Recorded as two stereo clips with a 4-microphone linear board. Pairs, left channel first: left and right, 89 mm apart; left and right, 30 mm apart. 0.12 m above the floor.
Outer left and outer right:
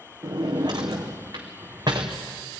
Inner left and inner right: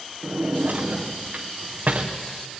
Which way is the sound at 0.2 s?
50° right (ahead or behind).